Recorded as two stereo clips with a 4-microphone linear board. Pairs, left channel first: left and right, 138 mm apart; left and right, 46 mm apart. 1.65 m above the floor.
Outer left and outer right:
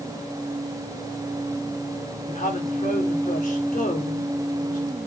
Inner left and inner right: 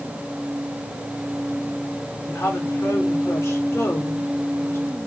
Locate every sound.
2.2 s a woman speaking: 70° left (ahead or behind), 4 m